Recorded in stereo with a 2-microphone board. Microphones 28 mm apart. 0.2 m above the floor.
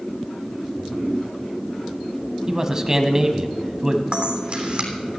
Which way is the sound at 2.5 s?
25° right (ahead or behind).